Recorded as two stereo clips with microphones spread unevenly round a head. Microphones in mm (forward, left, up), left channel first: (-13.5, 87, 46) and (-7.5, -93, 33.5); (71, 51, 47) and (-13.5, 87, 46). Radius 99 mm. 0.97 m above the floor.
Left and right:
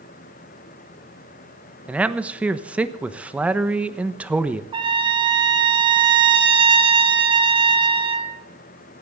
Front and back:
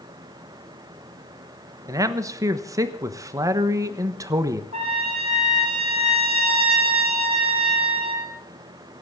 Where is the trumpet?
155° right, 2.5 m.